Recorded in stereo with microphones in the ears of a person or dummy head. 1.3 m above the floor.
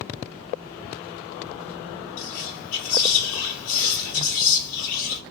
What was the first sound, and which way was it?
Whispering, 75° left (ahead or behind).